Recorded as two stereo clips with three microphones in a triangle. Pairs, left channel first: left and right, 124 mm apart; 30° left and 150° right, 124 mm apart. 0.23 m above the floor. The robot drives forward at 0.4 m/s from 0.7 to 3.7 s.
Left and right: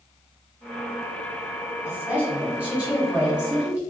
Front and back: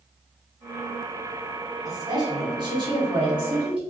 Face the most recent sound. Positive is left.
turn(degrees=-165)